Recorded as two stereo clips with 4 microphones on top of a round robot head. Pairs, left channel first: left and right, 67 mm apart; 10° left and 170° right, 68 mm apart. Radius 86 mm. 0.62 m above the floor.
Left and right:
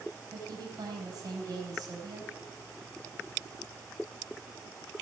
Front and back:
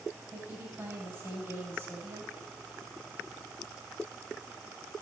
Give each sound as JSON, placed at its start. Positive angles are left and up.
{"t": 0.3, "sound": "a woman speaking", "azimuth_deg": -115, "distance_m": 4.5}